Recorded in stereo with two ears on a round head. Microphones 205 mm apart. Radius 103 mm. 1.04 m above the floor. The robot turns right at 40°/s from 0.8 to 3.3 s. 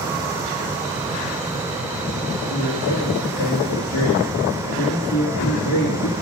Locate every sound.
2.5 s a man speaking: 75° left, 1.6 m; by 6.1 s 110° left, 1.6 m